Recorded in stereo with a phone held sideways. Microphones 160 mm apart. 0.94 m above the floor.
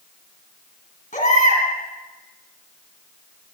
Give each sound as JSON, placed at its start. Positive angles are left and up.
{"t": 1.1, "sound": "a baby crying", "side_deg": 55, "distance_m": 2.5}